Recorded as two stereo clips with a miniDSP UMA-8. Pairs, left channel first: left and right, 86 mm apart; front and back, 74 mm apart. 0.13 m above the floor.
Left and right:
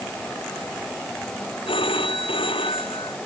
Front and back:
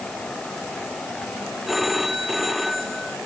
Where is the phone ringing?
90° left.